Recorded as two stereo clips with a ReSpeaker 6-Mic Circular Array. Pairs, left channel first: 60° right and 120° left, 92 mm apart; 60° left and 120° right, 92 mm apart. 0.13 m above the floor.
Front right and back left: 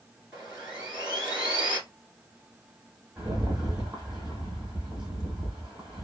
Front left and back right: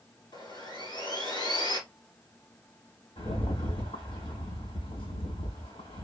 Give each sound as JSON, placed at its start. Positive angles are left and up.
{"t": 0.3, "sound": "sawing", "azimuth_deg": 45, "distance_m": 2.5}
{"t": 3.2, "sound": "a rattle", "azimuth_deg": 35, "distance_m": 2.5}